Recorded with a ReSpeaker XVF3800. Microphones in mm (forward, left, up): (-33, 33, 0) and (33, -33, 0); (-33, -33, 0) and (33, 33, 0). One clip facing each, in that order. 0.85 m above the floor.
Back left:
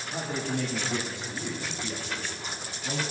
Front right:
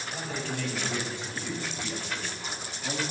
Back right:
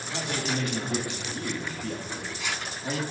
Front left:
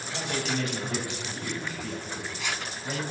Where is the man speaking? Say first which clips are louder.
Back left 4 dB, even; 170° left, 2 m; by 3.0 s 115° right, 1.7 m.